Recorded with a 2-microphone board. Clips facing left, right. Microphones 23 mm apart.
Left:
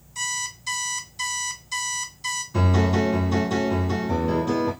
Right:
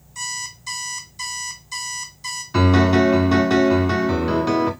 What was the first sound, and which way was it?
An alarm clock, 5° left (ahead or behind).